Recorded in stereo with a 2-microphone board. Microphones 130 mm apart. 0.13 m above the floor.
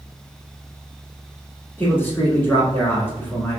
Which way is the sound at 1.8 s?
15° left (ahead or behind).